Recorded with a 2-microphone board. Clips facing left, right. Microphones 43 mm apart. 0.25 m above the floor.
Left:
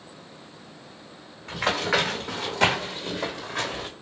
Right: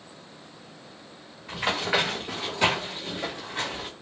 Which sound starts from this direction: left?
Running footsteps, at 1.5 s.